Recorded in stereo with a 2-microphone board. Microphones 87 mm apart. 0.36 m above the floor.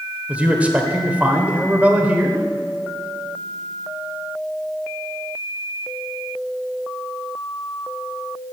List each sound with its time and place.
0.3 s a man speaking: 15° right (ahead or behind), 1.3 m